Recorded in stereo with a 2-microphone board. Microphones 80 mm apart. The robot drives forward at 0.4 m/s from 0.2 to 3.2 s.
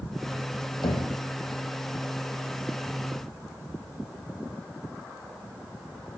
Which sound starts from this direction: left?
Knocking, at 0.8 s.